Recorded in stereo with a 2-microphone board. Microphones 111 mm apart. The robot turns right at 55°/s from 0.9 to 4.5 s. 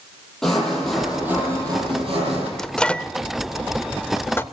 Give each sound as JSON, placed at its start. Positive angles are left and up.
{"t": 0.4, "sound": "sawing", "azimuth_deg": 175, "distance_m": 8.5}
{"t": 2.6, "sound": "a microwave", "side_deg": 5, "distance_m": 0.7}